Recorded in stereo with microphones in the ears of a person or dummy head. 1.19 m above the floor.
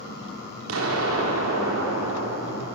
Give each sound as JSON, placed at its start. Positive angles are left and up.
{"t": 0.7, "sound": "an explosion", "side_deg": -70, "distance_m": 4.0}